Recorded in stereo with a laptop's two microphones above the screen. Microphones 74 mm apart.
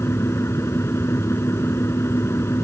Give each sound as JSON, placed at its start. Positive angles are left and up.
{"t": 0.0, "sound": "a fan", "side_deg": 40}